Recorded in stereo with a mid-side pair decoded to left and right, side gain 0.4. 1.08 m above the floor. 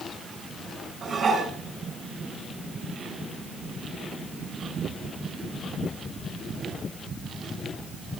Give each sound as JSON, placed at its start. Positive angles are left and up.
{"t": 1.0, "sound": "dishes clattering", "azimuth_deg": -45, "distance_m": 7.0}